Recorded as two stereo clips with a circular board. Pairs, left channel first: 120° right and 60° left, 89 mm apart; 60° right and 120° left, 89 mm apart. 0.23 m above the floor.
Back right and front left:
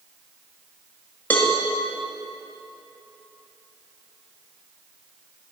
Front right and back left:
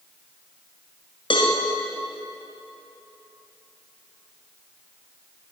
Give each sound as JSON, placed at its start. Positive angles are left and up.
{"t": 1.3, "sound": "a cowbell", "azimuth_deg": -50, "distance_m": 1.8}